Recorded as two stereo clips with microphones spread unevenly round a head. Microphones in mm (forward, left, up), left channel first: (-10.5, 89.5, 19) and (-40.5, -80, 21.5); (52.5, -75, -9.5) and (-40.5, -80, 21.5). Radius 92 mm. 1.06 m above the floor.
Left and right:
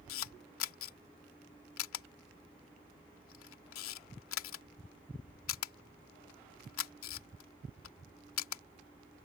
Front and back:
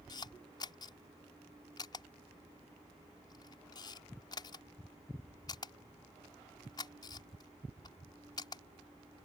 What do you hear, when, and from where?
0.1 s a camera shutter: 70° left